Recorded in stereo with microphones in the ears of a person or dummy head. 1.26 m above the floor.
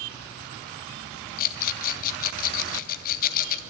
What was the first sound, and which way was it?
A rattle, 55° left (ahead or behind).